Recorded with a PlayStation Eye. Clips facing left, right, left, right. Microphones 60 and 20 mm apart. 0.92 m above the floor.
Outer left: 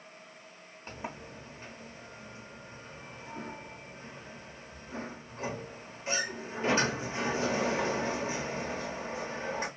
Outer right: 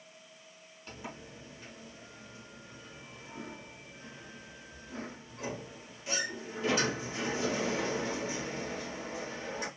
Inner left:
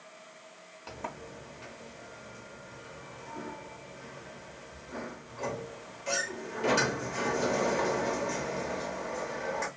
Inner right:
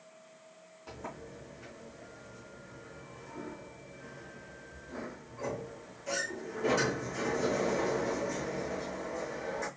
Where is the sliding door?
35° left (ahead or behind), 0.7 m.